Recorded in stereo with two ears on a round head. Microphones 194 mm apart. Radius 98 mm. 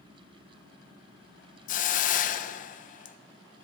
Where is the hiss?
40° left (ahead or behind), 0.5 m.